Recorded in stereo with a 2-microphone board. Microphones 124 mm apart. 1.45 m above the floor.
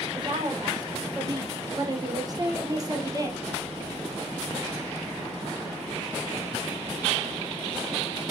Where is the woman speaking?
40° right (ahead or behind), 5 m; by 3.5 s 30° right (ahead or behind), 3.5 m.